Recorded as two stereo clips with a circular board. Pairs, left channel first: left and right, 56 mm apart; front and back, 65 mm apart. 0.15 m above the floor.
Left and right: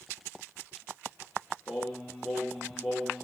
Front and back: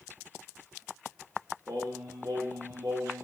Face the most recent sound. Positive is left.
turn(degrees=-175)